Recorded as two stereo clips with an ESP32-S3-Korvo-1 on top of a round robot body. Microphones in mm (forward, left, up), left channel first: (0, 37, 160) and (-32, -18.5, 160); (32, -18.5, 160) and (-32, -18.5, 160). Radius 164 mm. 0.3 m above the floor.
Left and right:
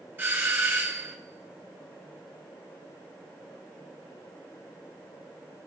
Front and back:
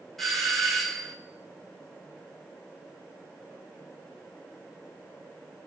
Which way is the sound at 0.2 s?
85° right.